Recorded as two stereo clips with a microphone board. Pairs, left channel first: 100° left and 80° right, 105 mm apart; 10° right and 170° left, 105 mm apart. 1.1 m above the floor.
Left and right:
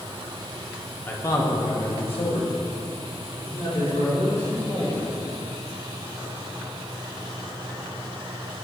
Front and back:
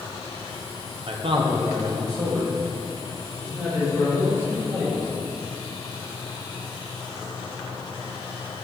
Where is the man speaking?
165° left, 0.9 m; by 5.3 s 100° left, 5 m.